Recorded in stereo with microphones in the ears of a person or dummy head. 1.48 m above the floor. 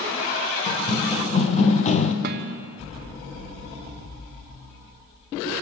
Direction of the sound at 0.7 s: 30° left (ahead or behind).